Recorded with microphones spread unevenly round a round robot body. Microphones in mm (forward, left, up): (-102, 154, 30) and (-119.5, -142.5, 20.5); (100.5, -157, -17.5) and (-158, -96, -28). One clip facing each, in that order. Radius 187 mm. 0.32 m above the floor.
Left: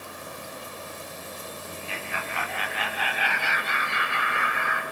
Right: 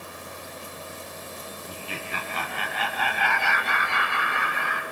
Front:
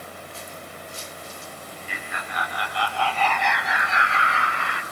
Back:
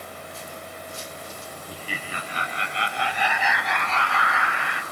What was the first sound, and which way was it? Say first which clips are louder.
Laughter: right 2 dB, back 4 dB; 145° right.